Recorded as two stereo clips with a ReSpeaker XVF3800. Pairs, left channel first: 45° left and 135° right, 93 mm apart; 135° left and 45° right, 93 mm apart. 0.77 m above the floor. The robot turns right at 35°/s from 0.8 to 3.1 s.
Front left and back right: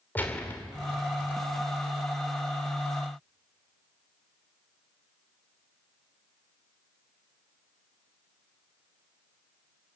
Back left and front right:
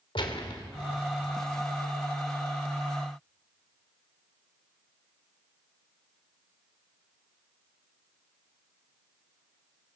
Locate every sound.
0.1 s a gunshot: 115° left, 2.5 m